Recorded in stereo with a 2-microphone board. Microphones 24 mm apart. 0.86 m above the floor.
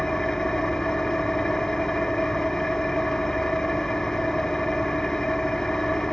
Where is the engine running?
25° left (ahead or behind), 0.8 m.